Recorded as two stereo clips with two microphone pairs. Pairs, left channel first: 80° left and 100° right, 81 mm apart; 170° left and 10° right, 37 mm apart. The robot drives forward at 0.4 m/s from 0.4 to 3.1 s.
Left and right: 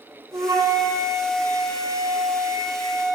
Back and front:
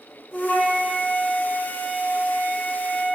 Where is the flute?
135° right, 2.5 m; by 3.2 s 150° right, 3 m.